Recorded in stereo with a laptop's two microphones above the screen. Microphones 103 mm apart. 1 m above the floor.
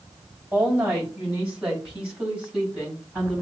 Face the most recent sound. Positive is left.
turn(degrees=-15)  # may be behind; listen again after turning